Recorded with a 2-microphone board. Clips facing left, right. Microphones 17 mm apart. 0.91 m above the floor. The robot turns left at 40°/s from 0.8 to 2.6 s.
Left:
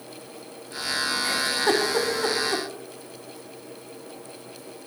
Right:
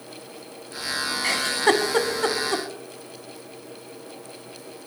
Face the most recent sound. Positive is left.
turn(degrees=-35)  # may be behind; listen again after turning